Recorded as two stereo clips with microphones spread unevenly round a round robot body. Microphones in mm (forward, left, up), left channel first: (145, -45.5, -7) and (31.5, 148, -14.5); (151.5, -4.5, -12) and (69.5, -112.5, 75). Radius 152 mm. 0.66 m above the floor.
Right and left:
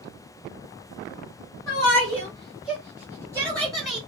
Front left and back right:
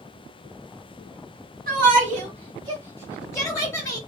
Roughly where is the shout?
Behind right.